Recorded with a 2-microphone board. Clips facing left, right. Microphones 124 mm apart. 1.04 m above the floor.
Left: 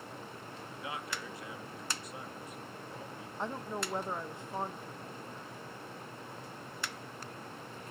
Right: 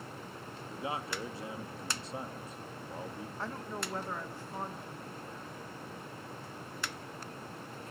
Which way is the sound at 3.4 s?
20° left (ahead or behind).